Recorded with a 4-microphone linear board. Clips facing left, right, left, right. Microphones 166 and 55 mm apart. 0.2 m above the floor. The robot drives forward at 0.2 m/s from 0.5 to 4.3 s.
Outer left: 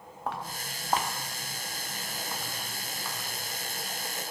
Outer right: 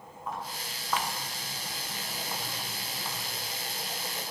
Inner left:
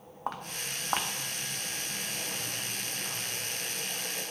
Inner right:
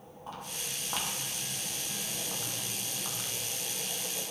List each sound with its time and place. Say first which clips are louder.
0.3 s footsteps: outer left 2 dB, inner left 5 dB; 80° left, 1.2 m; by 3.3 s 25° right (ahead or behind), 3 m